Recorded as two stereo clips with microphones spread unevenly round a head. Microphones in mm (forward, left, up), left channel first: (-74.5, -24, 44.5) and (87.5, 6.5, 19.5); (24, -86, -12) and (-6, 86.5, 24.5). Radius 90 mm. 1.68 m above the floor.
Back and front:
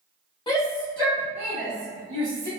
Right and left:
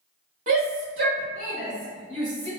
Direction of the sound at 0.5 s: 135° left.